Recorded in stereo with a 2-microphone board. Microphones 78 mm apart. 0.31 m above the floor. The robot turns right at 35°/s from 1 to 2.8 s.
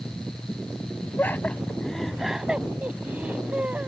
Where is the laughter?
30° left (ahead or behind); by 3.9 s 20° right (ahead or behind).